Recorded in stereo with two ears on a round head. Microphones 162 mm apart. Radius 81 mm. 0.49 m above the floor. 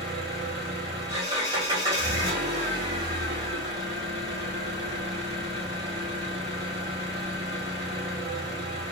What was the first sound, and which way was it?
An engine running, 25° right (ahead or behind).